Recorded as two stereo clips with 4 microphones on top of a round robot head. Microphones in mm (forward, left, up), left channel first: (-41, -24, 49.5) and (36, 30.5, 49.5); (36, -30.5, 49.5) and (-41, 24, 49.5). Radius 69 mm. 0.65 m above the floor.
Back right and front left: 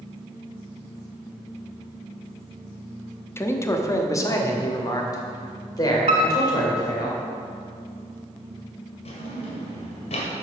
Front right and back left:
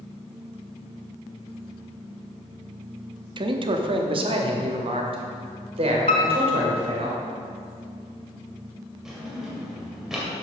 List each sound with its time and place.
3.4 s a man speaking: 155° left, 0.9 m; by 7.1 s 165° left, 3 m
6.1 s a piano: 5° right, 0.8 m
9.1 s a drawer: 130° right, 1.8 m